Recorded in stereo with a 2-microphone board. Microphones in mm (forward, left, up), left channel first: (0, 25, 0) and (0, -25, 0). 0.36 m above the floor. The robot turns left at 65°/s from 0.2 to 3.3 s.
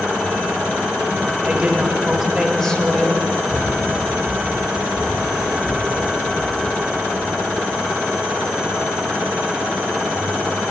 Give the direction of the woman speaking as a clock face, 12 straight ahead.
4 o'clock.